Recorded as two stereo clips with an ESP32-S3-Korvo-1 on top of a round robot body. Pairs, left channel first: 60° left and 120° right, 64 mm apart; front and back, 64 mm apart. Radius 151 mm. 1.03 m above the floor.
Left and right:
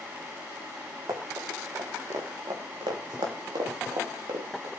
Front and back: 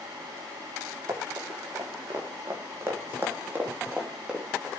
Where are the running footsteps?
150° right, 5 m; by 4.7 s 95° right, 3 m.